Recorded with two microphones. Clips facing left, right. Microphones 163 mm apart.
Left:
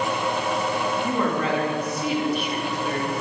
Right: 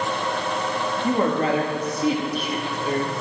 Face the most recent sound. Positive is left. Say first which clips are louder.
# right 6 dB
turn(degrees=-30)  # may be behind; listen again after turning